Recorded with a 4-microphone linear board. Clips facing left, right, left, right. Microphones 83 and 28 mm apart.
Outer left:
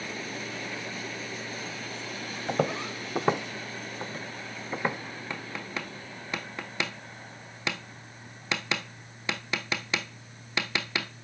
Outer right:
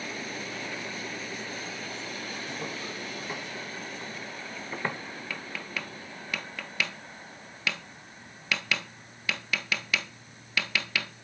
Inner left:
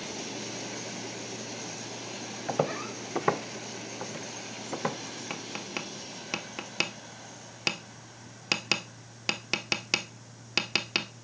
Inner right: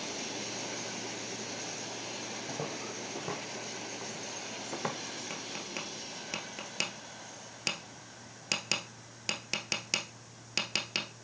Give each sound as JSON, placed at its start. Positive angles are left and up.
{"t": 2.5, "sound": "footsteps", "side_deg": 70, "distance_m": 0.9}
{"t": 5.3, "sound": "tapping", "side_deg": 25, "distance_m": 0.9}